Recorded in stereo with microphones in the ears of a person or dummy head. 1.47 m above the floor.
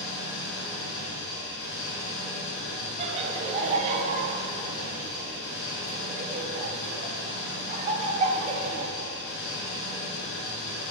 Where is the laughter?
35° right (ahead or behind), 0.8 m.